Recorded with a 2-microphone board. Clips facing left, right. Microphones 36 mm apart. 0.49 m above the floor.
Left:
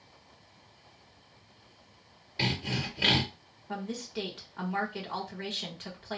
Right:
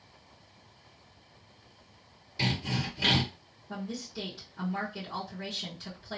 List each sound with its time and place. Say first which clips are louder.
2.4 s sawing: even; 25° left (ahead or behind), 1.4 m
3.7 s a woman speaking: left 2 dB; 55° left (ahead or behind), 1.4 m